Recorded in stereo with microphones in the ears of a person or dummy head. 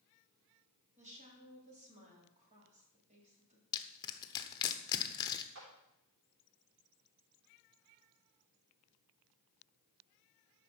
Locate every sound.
1.0 s a woman speaking: 40° right (ahead or behind), 3.5 m
3.7 s crushing: 25° left (ahead or behind), 1.0 m
5.5 s a clap: 65° right (ahead or behind), 3.5 m